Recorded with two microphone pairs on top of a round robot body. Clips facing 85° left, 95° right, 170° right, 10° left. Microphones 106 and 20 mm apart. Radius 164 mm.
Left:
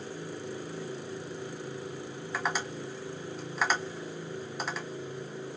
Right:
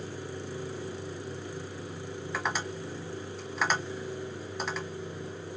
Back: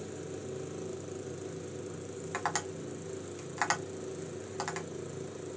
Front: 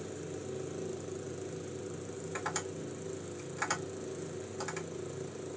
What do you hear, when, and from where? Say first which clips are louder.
2.3 s tapping: left 1 dB, back 4 dB; 175° left, 1.4 m